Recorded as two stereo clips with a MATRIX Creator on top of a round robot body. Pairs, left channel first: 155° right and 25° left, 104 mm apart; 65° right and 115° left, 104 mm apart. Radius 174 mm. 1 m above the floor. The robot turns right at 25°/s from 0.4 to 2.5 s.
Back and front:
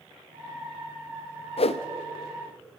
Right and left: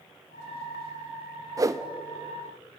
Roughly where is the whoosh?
Behind.